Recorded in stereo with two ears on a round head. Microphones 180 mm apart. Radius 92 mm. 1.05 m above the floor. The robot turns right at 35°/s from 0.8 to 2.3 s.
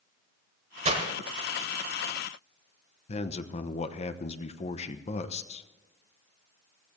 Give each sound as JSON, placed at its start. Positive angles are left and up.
{"t": 0.8, "sound": "breaking glass", "side_deg": -35, "distance_m": 1.8}
{"t": 3.1, "sound": "a man speaking", "side_deg": 30, "distance_m": 0.9}